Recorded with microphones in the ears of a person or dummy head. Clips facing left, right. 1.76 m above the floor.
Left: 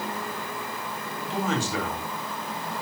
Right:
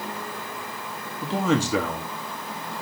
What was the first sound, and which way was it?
A man speaking, 70° right (ahead or behind).